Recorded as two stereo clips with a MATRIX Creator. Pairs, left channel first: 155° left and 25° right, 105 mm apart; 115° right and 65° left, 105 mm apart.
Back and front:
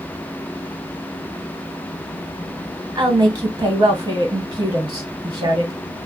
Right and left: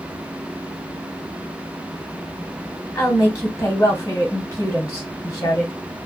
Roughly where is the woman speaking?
Ahead right.